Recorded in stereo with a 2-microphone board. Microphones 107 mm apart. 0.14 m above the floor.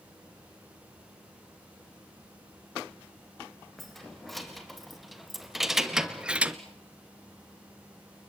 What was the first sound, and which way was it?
Keys jangling, centre (ahead or behind).